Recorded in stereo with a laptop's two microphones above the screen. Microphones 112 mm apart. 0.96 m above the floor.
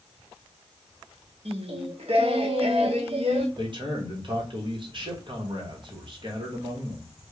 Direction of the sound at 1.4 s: 60° right (ahead or behind).